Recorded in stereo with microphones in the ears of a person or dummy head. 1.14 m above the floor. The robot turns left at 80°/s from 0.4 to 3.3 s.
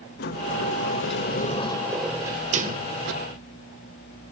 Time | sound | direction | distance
0.2 | a sliding door | 130° left | 1.8 m